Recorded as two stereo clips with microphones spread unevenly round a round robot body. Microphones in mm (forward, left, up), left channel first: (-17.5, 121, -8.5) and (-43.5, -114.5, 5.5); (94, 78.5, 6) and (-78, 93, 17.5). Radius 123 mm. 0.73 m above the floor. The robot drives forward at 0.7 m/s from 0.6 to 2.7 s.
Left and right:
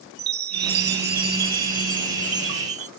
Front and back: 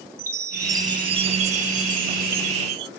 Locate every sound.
0.2 s a chime: 110° right; by 2.9 s 155° right